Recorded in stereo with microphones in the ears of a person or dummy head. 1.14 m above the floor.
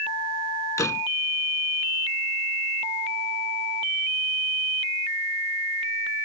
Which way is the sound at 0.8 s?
10° left (ahead or behind).